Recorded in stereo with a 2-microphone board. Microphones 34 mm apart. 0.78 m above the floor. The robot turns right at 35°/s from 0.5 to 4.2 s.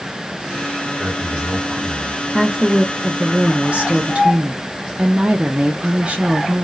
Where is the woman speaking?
170° right, 0.5 m; by 6.7 s 105° right, 0.5 m.